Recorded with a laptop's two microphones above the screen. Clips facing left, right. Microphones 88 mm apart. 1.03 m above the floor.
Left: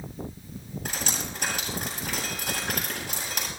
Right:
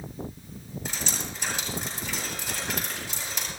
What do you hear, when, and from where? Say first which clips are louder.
0.8 s dripping: left 1 dB; 60° left (ahead or behind), 9 m